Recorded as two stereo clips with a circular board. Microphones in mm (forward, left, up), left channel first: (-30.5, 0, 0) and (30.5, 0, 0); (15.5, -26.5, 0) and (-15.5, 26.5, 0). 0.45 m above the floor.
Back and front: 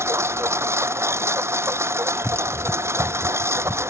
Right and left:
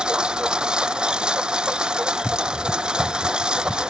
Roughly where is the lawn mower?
Ahead left.